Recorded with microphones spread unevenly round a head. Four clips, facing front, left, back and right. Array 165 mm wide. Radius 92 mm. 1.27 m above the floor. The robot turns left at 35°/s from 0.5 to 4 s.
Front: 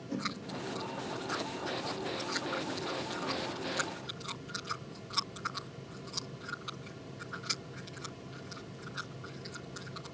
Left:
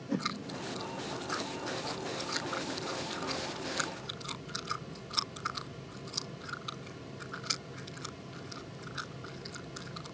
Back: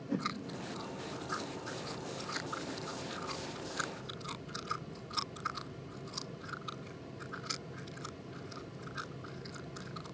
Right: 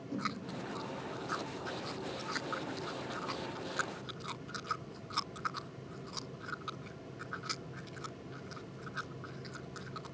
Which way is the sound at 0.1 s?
110° left.